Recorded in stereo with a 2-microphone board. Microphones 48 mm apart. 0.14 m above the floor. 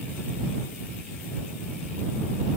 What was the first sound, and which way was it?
Only background noise.